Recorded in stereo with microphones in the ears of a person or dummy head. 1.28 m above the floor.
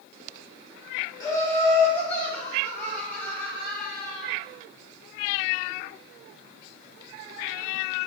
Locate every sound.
1.2 s laughter: 25° left (ahead or behind), 1.1 m; by 4.3 s 5° left (ahead or behind), 3.5 m